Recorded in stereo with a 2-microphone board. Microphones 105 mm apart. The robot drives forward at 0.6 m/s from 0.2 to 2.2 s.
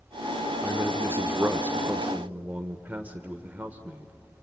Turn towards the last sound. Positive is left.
turn(degrees=-15)  # may be behind; listen again after turning